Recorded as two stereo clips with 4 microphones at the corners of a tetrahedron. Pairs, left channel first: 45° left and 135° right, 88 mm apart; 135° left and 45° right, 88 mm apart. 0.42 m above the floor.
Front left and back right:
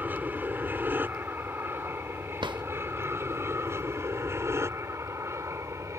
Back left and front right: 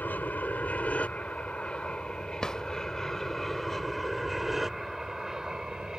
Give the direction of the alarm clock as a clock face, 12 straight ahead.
I don't hear an alarm clock.